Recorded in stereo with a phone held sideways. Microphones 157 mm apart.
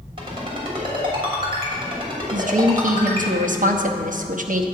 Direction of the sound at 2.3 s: 60° right (ahead or behind).